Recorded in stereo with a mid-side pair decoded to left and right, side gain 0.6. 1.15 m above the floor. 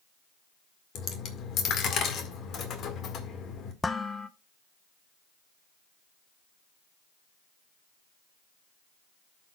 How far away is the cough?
I don't hear a cough.